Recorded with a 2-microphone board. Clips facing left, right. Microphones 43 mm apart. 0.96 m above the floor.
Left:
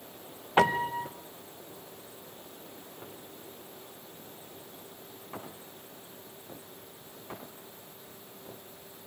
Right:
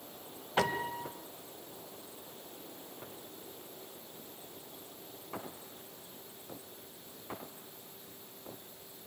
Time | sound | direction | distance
0.6 | a piano | 35° left (ahead or behind) | 0.9 m